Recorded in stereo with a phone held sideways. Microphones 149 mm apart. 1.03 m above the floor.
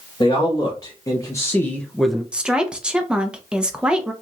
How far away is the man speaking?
About 1.4 m.